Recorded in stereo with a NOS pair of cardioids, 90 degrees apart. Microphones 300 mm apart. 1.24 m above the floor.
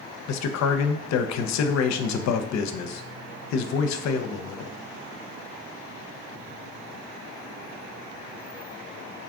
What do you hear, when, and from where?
0.3 s a man speaking: 65° left, 0.5 m